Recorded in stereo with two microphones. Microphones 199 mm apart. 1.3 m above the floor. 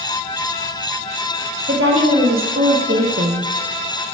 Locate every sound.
1.7 s a woman speaking: 85° right, 2 m; by 3.5 s 80° right, 0.7 m